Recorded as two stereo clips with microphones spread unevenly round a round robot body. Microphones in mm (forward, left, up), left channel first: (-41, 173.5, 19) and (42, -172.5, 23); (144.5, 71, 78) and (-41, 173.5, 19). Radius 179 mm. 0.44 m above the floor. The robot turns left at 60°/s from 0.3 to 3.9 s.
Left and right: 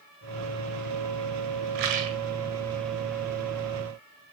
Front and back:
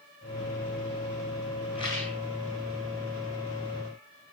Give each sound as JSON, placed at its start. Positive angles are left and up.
{"t": 1.8, "sound": "a rattle", "azimuth_deg": -105, "distance_m": 1.6}